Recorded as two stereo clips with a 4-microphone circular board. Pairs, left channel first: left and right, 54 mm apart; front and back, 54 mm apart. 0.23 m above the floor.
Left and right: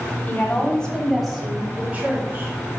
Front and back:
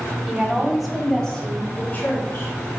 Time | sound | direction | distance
0.3 | a woman speaking | 120° left | 1.5 m